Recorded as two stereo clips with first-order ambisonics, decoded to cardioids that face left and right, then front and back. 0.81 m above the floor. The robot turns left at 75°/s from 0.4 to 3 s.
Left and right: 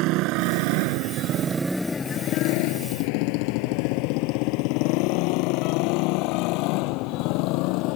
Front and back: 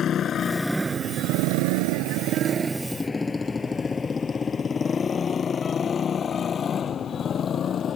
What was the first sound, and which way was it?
A motorcycle, 60° right.